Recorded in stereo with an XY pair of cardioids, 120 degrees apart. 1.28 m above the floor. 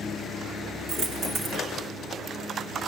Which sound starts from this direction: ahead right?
A dropped coin, at 0.9 s.